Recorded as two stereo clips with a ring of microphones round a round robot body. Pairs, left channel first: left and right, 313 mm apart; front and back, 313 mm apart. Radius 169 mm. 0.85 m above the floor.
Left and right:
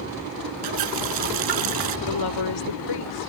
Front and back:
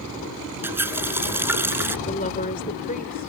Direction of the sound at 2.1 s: 70° left.